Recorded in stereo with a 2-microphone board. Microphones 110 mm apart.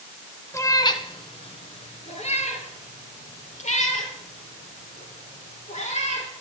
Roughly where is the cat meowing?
Left.